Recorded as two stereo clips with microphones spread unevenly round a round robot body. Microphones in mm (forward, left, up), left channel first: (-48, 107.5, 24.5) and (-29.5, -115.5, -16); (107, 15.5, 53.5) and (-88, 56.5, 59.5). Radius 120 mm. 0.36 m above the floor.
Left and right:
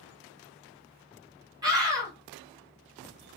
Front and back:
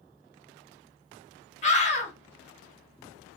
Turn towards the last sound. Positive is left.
turn(degrees=-35)